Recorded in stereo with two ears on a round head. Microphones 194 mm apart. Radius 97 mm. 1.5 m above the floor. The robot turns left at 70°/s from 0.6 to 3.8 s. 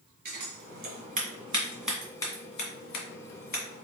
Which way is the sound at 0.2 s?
55° right (ahead or behind).